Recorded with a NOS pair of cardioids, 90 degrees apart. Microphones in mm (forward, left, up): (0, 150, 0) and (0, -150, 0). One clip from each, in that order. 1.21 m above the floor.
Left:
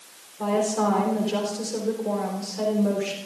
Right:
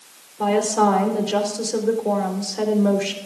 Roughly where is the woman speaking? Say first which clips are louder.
Right 5 dB; ahead right.